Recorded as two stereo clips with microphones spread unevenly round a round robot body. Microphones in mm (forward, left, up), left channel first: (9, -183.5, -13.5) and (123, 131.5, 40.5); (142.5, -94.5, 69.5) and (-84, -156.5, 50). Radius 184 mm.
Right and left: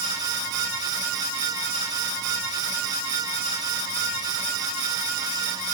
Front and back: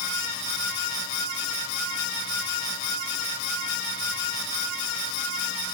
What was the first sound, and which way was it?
Only background noise.